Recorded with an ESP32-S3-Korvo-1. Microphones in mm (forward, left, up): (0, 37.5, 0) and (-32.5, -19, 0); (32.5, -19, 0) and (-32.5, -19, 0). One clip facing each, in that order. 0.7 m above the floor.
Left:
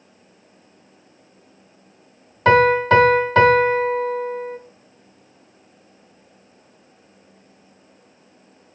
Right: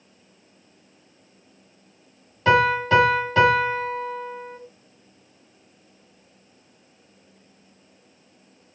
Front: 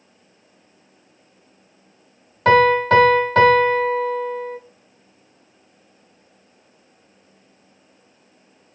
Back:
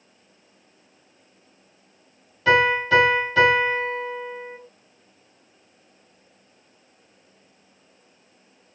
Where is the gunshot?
I don't hear a gunshot.